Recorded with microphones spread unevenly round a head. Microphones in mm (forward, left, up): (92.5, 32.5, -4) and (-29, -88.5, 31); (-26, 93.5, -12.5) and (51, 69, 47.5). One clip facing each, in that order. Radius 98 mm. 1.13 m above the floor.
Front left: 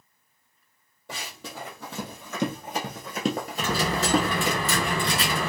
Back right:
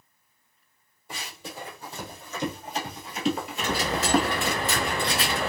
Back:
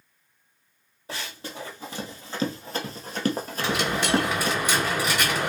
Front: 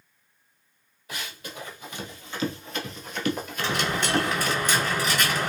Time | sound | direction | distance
1.1 | running footsteps | 90° left | 2 m
3.6 | a dropped coin | 65° left | 2.5 m